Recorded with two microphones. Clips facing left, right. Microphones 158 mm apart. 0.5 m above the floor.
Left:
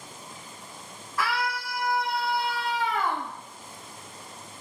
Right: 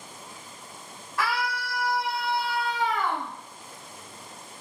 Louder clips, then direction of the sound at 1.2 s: Even; 20° right (ahead or behind).